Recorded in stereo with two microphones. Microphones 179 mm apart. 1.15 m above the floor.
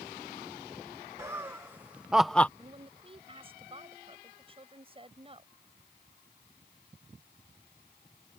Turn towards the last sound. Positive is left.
turn(degrees=-30)  # may be behind; listen again after turning